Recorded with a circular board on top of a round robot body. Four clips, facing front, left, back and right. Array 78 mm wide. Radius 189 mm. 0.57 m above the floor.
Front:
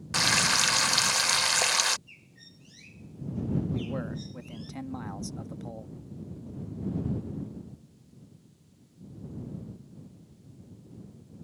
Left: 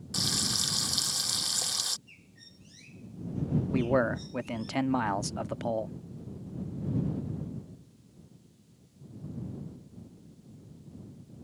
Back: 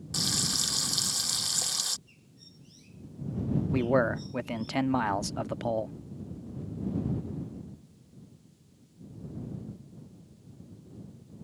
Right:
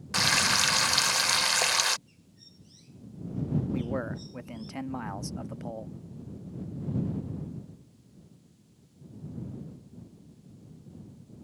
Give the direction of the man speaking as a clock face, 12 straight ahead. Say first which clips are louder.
Left 6 dB, back 8 dB; 7 o'clock.